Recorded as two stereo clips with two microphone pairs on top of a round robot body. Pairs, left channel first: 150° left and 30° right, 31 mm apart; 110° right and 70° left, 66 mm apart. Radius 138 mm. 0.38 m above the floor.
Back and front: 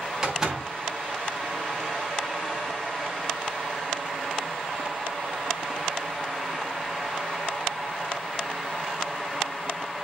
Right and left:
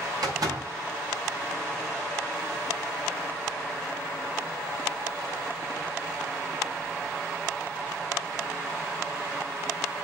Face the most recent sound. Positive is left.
turn(degrees=45)